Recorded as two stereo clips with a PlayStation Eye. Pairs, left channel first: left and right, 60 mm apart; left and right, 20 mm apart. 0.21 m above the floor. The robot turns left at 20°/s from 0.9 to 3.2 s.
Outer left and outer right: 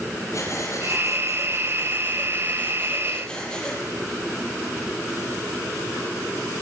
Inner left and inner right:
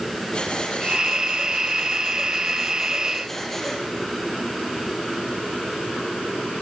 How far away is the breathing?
About 6.5 m.